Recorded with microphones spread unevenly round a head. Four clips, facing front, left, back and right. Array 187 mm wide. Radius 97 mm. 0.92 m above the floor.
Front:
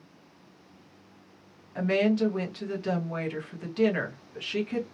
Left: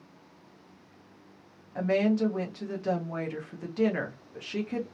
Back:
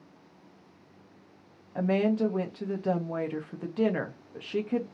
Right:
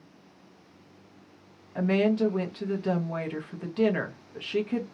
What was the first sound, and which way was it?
A woman speaking, 165° right.